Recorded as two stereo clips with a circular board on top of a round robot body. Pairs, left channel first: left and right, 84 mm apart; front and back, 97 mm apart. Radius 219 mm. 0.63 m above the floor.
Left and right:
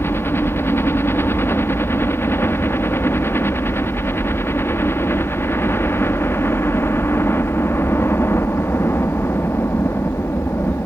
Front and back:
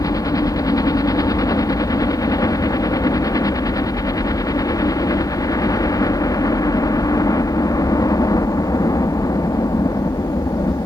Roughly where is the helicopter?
Ahead left.